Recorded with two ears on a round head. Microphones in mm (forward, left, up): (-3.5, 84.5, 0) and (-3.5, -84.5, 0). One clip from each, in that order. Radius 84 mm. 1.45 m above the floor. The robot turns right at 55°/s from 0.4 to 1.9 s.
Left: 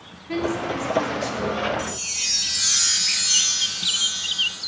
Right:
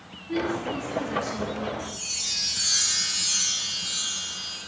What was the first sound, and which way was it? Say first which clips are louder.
A woman speaking: left 3 dB; 95° left.